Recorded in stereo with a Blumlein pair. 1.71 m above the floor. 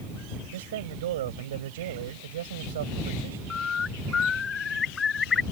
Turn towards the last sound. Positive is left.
turn(degrees=20)